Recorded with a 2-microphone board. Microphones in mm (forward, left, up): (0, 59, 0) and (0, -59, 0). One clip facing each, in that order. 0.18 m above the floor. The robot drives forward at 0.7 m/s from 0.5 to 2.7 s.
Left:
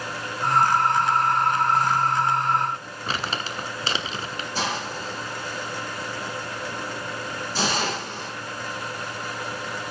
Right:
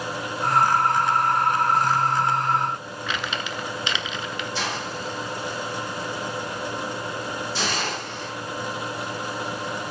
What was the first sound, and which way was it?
Crumpling, 35° left (ahead or behind).